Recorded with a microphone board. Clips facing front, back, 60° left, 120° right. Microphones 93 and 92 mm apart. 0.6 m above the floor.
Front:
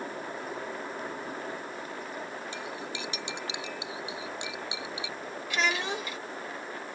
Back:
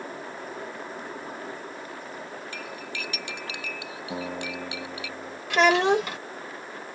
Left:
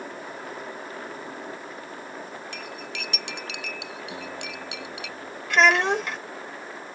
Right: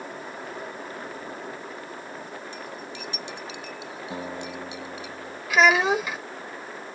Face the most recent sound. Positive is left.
turn(degrees=155)